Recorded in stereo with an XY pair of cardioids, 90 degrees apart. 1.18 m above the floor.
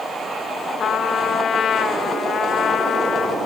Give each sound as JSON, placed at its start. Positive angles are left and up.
{"t": 0.8, "sound": "a trumpet", "azimuth_deg": 60, "distance_m": 2.0}